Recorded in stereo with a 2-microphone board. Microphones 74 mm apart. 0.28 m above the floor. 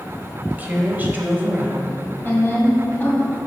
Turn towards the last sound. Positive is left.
turn(degrees=25)  # may be behind; listen again after turning